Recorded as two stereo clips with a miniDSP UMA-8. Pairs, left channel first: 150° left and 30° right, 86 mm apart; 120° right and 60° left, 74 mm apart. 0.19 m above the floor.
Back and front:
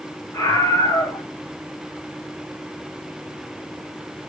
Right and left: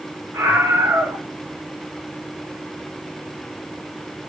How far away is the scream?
About 3 m.